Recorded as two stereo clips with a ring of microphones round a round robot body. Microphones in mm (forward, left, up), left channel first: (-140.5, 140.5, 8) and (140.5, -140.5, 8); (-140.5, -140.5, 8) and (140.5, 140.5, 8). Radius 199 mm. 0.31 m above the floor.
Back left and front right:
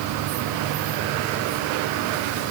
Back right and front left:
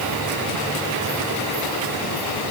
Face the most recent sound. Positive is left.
No sound to turn to.